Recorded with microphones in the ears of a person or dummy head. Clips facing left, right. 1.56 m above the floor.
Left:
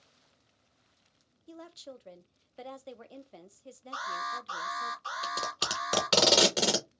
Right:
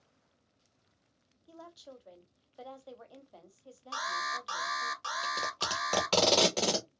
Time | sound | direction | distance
1.5 | a woman speaking | 30° left (ahead or behind) | 0.6 m
3.9 | an alarm | 70° right (ahead or behind) | 2 m
5.2 | tape being pulled | 10° left (ahead or behind) | 0.9 m